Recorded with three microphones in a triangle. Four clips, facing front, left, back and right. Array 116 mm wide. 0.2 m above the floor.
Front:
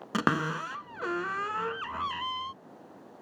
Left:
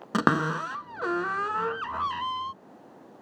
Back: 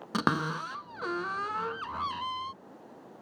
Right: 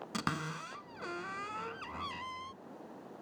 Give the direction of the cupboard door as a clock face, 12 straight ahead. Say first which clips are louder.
Left 14 dB, front 1 dB; 9 o'clock.